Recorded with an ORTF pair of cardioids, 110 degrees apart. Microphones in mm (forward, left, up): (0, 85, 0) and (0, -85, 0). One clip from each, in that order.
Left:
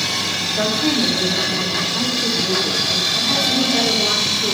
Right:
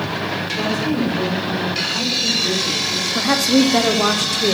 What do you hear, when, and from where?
0.6 s a woman speaking: 20° left, 3 m
3.1 s a woman speaking: 65° right, 1.0 m